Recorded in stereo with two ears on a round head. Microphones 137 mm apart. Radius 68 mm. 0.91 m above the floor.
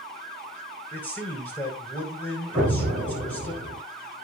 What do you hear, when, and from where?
0.9 s a man speaking: 10° left (ahead or behind), 4 m
2.5 s an explosion: 10° right (ahead or behind), 6.5 m